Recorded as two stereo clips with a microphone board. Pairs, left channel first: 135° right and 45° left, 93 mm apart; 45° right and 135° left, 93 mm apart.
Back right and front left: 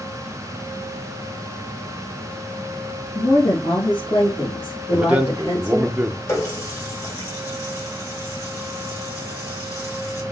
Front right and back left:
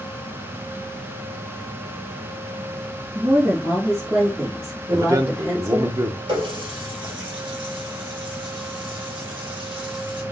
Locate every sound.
3.1 s a woman speaking: 175° right, 1.5 m; by 5.9 s 150° right, 3 m
4.9 s a man speaking: 115° left, 0.6 m
6.3 s a running tap: 165° left, 1.5 m